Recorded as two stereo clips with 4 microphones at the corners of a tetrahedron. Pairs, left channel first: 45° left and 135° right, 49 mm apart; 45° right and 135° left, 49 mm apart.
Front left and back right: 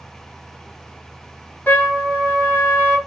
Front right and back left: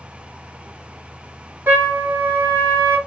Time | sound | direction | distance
1.7 | a trumpet | 90° left | 1.6 m